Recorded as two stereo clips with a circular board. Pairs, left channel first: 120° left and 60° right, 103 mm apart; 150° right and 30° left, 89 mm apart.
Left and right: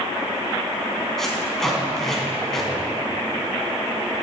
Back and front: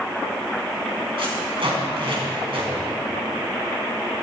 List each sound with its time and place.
1.2 s tape being pulled: 35° left, 3 m